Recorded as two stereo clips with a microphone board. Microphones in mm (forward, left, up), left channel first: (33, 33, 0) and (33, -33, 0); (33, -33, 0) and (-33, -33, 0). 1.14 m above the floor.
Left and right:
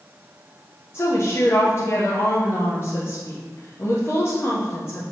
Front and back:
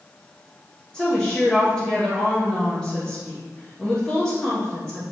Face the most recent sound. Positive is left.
turn(degrees=70)